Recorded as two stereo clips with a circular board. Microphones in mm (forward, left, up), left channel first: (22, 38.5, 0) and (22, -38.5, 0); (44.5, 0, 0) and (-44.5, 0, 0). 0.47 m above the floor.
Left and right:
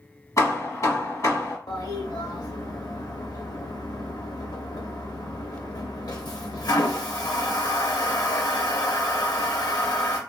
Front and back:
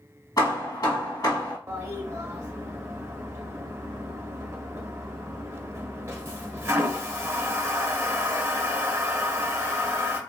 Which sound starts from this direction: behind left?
A toilet flushing, at 1.7 s.